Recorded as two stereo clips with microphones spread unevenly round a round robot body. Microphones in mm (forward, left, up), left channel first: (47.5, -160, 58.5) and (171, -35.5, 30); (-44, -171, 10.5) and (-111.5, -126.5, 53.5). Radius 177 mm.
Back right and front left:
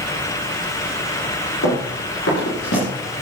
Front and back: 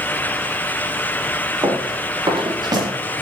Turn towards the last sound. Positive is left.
turn(degrees=180)